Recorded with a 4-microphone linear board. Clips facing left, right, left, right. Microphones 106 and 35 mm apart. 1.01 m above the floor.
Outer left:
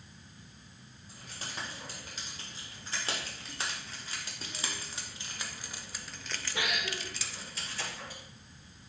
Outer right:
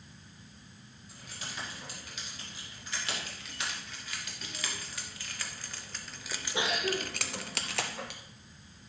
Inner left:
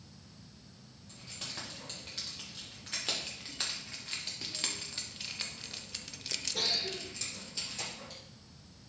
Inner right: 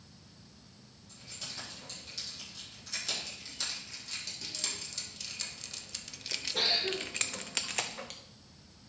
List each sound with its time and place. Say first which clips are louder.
1.1 s keys jangling: outer left 1 dB, inner left 1 dB; 40° left (ahead or behind), 3.5 m; by 8.2 s 80° right, 0.9 m